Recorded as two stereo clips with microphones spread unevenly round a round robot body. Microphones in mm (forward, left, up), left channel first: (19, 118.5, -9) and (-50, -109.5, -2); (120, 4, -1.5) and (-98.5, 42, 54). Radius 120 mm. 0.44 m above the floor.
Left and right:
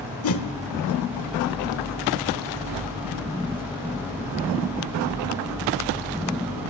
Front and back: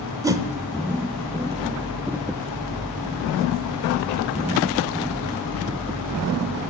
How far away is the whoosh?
About 0.9 m.